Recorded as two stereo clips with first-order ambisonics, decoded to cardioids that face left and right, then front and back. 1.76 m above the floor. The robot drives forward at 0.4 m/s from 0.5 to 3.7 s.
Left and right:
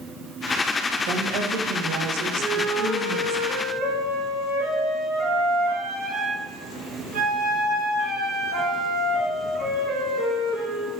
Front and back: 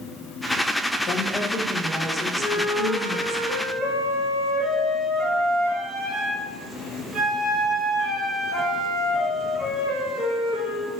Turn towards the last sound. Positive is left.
turn(degrees=-125)